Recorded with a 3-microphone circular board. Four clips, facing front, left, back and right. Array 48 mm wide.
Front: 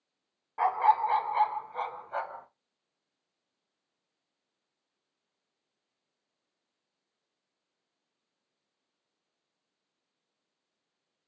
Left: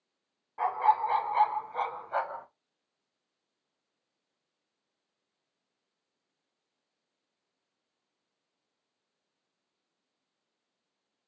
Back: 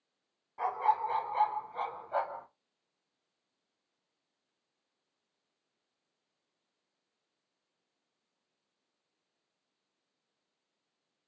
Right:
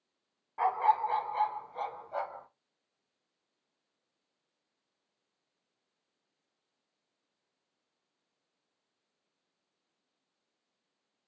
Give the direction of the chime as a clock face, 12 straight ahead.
I don't hear a chime.